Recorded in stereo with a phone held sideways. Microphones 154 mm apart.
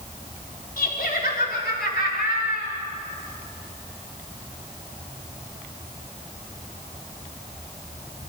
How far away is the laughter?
About 4 m.